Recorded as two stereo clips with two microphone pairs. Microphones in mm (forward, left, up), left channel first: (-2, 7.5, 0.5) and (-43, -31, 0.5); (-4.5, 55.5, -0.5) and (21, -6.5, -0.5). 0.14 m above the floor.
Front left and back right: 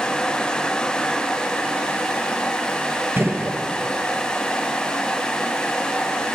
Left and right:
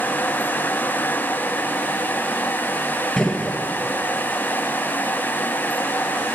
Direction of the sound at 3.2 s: 175° right.